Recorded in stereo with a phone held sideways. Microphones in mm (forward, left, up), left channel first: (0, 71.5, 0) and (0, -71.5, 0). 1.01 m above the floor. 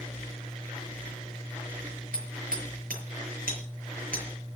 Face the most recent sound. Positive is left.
turn(degrees=-80)